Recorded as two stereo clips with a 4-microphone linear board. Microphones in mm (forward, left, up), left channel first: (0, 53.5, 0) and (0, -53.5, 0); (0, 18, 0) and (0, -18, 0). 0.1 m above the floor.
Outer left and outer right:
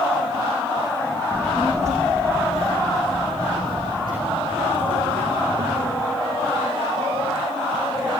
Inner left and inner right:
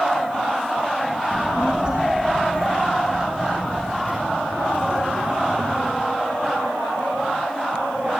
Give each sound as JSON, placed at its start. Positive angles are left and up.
{"t": 1.3, "sound": "a child speaking", "side_deg": -25, "distance_m": 3.5}